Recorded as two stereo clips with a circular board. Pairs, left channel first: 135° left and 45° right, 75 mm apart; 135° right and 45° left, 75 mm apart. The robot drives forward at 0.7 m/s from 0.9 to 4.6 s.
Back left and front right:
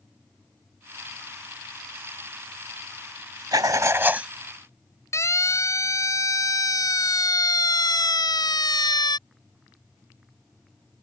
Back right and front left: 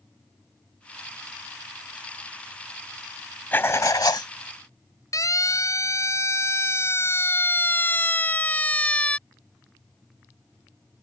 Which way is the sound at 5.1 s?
175° right.